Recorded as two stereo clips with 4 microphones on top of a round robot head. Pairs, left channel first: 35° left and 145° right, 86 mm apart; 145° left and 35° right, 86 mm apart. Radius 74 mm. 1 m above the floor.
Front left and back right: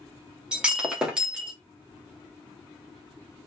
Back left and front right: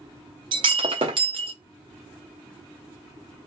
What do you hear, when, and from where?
0.5 s breaking glass: 65° right, 0.6 m